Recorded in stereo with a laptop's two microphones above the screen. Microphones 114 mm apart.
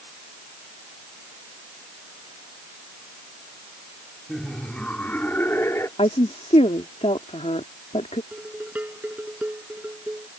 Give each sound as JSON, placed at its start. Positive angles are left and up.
{"t": 4.3, "sound": "laughter", "side_deg": 5}
{"t": 6.0, "sound": "a woman speaking", "side_deg": 65}
{"t": 8.3, "sound": "dishes clattering", "side_deg": -15}